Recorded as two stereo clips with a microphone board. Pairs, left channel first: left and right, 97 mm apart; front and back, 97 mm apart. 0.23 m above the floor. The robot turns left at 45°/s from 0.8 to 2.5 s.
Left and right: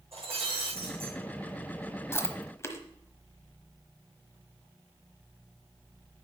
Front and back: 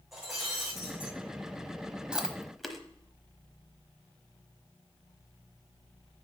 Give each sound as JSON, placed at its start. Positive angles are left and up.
{"t": 0.1, "sound": "breaking glass", "azimuth_deg": -95, "distance_m": 5.5}
{"t": 2.1, "sound": "chewing", "azimuth_deg": 105, "distance_m": 1.1}